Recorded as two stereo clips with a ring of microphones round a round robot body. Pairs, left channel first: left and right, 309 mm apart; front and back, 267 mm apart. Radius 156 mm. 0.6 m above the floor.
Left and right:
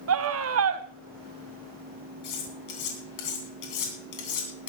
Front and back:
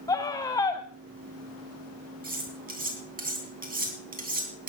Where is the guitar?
No guitar in this recording.